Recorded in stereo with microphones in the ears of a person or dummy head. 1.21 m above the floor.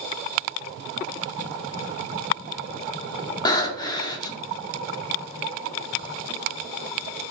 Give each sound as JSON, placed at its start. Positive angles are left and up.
{"t": 3.5, "sound": "breathing", "side_deg": 25, "distance_m": 0.6}